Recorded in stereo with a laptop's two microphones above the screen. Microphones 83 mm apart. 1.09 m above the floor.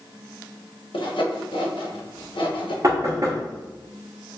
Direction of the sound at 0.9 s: 85° left.